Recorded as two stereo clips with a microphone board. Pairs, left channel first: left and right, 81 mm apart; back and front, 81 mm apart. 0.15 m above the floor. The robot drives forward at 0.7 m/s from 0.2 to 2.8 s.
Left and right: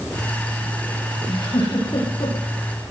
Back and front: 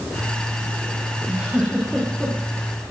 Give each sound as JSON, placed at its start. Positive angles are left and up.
{"t": 1.3, "sound": "a giggle", "azimuth_deg": 75, "distance_m": 6.5}